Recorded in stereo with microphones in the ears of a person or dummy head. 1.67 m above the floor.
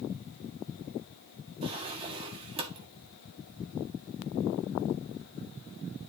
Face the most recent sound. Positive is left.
turn(degrees=-30)  # may be behind; listen again after turning